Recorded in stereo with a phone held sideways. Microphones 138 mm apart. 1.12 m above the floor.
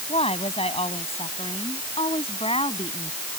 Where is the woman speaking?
45° left (ahead or behind).